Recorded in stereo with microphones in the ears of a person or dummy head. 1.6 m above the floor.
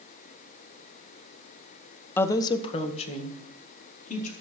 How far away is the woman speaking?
About 0.9 m.